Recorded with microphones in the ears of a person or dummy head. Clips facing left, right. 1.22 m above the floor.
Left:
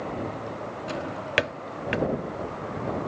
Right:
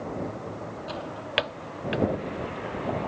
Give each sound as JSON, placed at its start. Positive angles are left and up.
{"t": 0.9, "sound": "a drawer", "side_deg": 30}